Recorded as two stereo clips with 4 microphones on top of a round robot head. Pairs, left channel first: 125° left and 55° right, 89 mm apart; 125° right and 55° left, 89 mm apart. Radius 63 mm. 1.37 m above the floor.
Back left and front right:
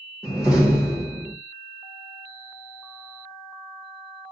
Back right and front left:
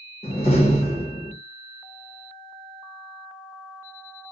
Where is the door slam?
135° right, 0.9 m.